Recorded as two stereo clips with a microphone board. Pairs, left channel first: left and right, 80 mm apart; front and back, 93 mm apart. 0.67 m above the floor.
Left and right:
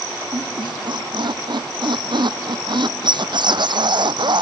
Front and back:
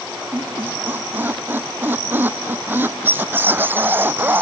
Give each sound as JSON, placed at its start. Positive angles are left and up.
{"t": 0.3, "sound": "a squeak", "azimuth_deg": -110}